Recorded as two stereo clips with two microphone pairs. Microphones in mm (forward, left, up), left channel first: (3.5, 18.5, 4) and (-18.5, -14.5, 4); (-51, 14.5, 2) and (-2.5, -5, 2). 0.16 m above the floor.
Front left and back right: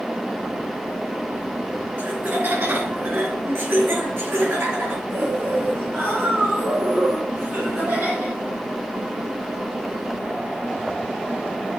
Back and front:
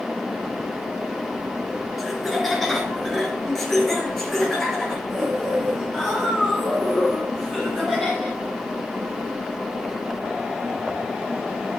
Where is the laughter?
115° right, 2.5 m; by 8.4 s 120° right, 6 m.